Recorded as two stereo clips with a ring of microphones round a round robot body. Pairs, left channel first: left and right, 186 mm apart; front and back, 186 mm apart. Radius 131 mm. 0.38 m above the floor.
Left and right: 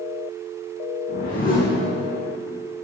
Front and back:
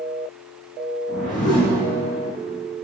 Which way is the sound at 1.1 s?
45° left.